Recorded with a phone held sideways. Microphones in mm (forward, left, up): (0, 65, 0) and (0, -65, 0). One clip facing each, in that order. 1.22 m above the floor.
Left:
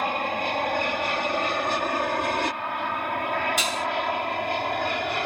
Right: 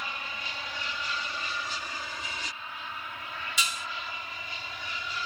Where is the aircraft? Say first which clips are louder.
Left 14 dB; 60° left (ahead or behind); by 5.3 s 65° left (ahead or behind).